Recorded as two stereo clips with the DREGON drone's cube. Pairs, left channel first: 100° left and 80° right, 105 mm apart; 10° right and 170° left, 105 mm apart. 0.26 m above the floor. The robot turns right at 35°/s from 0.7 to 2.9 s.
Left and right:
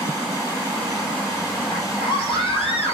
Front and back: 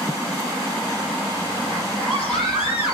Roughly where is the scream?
Ahead left.